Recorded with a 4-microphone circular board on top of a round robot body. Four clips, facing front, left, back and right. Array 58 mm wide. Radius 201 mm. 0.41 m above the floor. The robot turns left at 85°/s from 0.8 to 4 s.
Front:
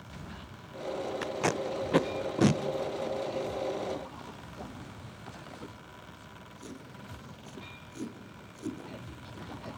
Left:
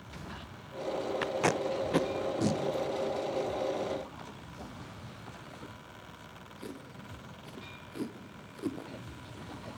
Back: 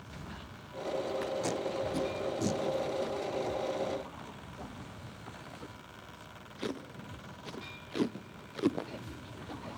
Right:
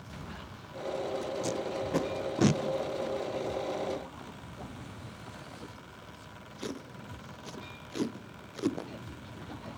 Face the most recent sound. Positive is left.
turn(degrees=-160)